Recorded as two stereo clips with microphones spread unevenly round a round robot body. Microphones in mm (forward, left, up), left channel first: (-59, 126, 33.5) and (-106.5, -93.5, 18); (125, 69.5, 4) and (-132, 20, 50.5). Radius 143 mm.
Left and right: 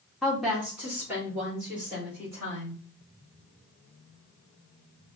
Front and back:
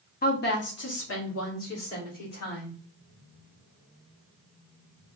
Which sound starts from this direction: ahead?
A woman speaking, at 0.2 s.